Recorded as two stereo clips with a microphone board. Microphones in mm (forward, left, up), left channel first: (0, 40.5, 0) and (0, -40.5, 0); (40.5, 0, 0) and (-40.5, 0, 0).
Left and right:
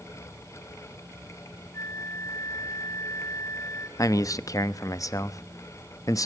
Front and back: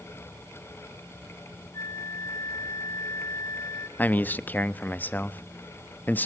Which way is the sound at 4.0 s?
60° left.